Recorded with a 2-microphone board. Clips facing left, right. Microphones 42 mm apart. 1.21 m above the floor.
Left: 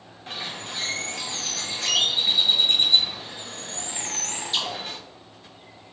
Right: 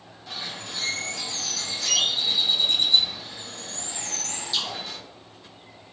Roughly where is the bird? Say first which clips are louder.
Left 2 dB; left.